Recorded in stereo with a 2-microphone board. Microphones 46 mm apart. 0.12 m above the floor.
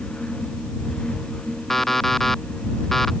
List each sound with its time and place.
1.7 s an alarm clock: 5° left (ahead or behind)